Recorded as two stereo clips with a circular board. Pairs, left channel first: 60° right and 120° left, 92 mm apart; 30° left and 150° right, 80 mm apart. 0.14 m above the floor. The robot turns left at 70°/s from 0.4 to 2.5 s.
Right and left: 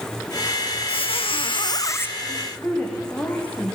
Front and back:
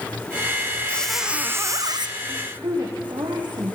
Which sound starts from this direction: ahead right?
A squeak, at 0.9 s.